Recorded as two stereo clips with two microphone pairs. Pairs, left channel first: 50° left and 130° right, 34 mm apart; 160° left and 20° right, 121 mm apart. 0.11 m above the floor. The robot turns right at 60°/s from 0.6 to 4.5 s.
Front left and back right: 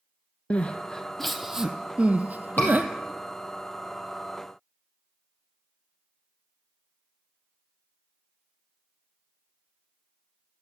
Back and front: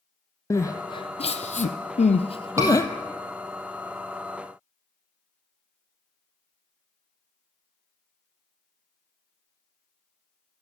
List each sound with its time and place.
0.5 s crying: 95° left, 0.8 m; by 2.9 s 130° right, 0.8 m
2.6 s a scream: 40° left, 3.5 m; by 2.7 s 50° left, 3.5 m